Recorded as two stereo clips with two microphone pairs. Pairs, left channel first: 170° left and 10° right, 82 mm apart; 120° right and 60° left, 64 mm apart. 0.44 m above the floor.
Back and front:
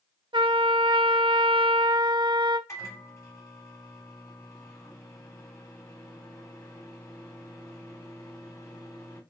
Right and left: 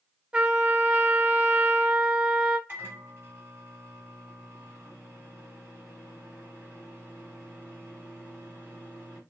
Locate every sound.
0.3 s a trumpet: 15° right, 0.7 m
2.7 s a microwave: 115° left, 2.5 m